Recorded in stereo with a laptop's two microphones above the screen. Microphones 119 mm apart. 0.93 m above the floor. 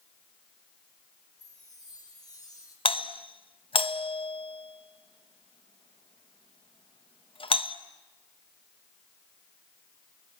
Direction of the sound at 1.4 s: 35° left (ahead or behind).